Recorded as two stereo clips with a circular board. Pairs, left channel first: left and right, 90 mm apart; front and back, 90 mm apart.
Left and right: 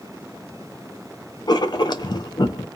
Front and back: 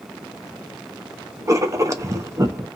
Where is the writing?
125° left, 0.6 m.